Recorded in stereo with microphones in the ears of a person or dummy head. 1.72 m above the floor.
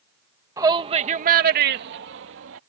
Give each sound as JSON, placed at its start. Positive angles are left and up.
{"t": 0.6, "sound": "a shout", "side_deg": -20}